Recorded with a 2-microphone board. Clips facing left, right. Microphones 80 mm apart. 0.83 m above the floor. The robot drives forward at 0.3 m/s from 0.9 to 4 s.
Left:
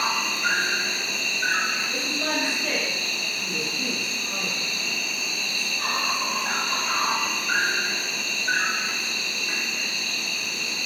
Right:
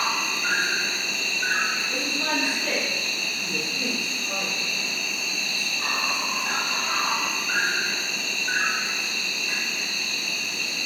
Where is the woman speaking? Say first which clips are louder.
Even; 40° right (ahead or behind), 0.9 m; by 4.7 s 45° right (ahead or behind), 0.8 m.